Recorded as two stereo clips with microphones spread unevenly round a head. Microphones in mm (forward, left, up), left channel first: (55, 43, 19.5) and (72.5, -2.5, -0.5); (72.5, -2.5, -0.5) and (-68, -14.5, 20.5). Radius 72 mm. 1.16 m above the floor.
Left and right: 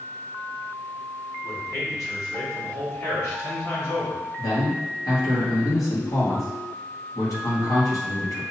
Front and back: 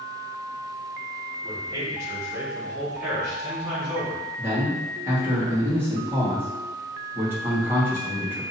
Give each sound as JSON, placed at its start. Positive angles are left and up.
{"t": 1.4, "sound": "a man speaking", "azimuth_deg": 120, "distance_m": 2.0}
{"t": 4.4, "sound": "a man speaking", "azimuth_deg": 105, "distance_m": 1.8}